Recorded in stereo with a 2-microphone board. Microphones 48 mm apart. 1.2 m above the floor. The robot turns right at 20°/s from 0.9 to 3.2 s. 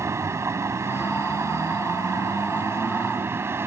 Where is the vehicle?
105° right; by 3.7 s 60° right.